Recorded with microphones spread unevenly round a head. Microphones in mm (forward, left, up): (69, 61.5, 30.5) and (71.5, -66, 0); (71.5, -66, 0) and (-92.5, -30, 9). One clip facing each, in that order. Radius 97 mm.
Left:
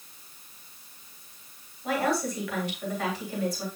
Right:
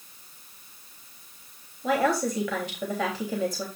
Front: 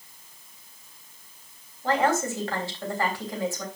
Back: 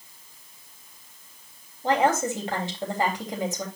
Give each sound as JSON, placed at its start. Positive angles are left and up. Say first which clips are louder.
{"t": 1.8, "sound": "a woman speaking", "louder": "right 3 dB, back 2 dB", "azimuth_deg": -120, "distance_m": 3.5}